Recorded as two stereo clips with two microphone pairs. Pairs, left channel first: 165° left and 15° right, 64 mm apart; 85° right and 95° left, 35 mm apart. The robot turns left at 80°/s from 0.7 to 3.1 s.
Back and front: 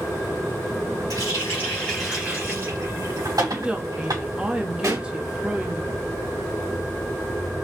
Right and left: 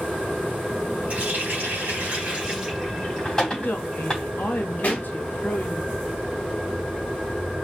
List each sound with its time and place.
1.1 s a running tap: 145° left, 3 m; by 4.2 s 15° right, 3 m
3.5 s a woman speaking: 85° right, 0.8 m
4.8 s a pop: 40° right, 1.7 m